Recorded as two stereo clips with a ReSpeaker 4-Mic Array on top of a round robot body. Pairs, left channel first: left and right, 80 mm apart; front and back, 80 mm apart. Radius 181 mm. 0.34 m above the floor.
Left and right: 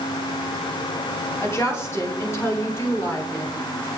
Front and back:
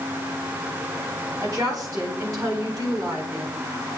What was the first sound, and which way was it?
A woman speaking, 145° left.